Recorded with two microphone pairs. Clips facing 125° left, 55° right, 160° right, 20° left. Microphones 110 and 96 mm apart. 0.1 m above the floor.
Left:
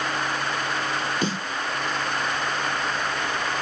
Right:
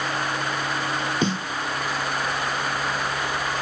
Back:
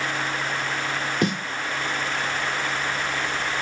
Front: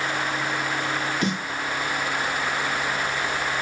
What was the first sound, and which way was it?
A snare drum, 125° right.